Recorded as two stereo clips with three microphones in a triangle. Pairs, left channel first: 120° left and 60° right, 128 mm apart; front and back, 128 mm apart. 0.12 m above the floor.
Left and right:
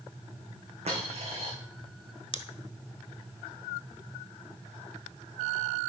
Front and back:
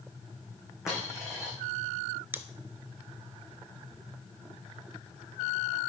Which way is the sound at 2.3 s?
115° left.